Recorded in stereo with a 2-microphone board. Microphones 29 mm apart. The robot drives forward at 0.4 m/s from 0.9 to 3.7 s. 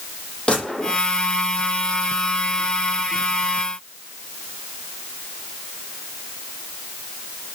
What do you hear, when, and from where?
0.5 s a gunshot: 40° left (ahead or behind), 9 m